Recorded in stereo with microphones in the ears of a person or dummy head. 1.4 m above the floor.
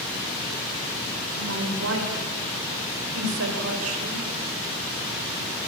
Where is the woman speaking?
75° right (ahead or behind), 6 m; by 4.3 s 80° right, 6.5 m.